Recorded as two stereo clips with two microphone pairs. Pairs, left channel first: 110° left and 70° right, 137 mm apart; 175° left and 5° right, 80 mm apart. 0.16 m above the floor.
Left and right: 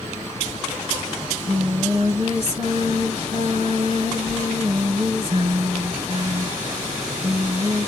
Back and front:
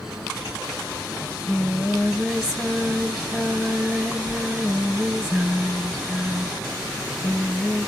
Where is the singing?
80° right, 1.0 m.